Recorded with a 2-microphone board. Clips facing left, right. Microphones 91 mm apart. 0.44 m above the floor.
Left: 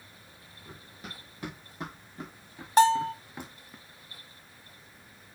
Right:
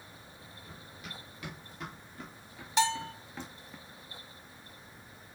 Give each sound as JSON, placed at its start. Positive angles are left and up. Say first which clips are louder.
{"t": 0.7, "sound": "running footsteps", "louder": "left 3 dB", "side_deg": 40, "distance_m": 3.5}
{"t": 2.8, "sound": "a bell", "louder": "left 9 dB", "side_deg": 50, "distance_m": 0.6}